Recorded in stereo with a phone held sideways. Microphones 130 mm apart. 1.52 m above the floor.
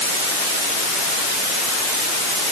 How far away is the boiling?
No boiling in this recording.